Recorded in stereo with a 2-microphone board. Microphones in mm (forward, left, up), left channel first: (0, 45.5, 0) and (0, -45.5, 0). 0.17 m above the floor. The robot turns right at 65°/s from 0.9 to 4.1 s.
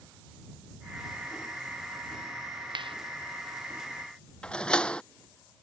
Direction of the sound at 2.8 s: 60° right (ahead or behind).